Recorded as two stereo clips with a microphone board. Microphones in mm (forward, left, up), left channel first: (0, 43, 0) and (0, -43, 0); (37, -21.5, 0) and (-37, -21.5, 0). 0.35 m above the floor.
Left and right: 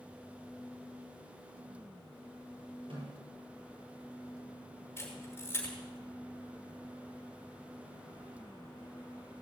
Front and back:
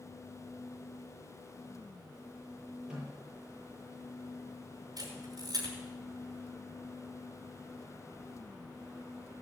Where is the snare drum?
100° right, 7 m.